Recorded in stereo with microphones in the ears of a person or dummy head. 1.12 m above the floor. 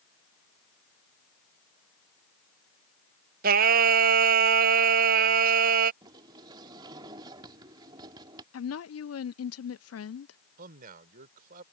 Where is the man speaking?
55° right (ahead or behind).